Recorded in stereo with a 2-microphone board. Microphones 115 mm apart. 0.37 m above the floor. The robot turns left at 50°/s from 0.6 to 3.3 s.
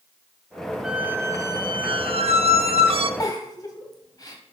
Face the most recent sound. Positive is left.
turn(degrees=35)  # may be behind; listen again after turning